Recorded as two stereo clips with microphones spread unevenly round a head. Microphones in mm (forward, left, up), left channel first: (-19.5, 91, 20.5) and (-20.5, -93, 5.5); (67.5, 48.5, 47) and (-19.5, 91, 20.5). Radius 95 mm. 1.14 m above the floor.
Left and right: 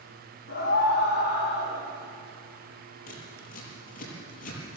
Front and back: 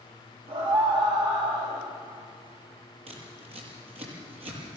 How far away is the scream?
About 5 m.